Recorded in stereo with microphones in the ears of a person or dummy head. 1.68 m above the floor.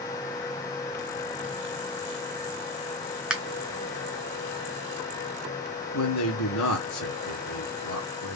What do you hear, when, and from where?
3.3 s a finger snap: 5° right (ahead or behind), 0.5 m
5.9 s a man speaking: 75° left (ahead or behind), 0.6 m